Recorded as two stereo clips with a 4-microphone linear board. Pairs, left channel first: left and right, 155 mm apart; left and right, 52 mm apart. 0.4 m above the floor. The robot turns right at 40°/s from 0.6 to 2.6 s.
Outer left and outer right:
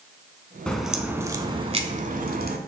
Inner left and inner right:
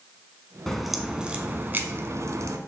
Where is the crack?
175° left, 0.8 m; by 2.6 s 110° right, 0.8 m.